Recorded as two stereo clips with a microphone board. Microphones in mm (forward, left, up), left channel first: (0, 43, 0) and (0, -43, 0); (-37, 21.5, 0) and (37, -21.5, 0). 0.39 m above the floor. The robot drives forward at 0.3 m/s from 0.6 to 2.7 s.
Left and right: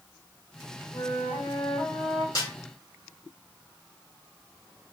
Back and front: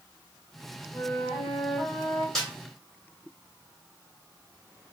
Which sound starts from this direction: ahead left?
A snare drum, at 2.4 s.